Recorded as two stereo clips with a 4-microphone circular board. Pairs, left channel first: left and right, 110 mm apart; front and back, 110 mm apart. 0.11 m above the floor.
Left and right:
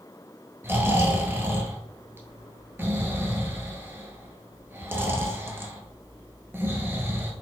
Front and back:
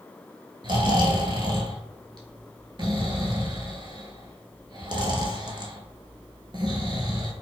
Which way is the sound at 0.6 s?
155° right.